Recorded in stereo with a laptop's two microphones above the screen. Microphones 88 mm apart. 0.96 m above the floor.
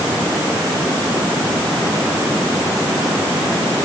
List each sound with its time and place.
Only background noise.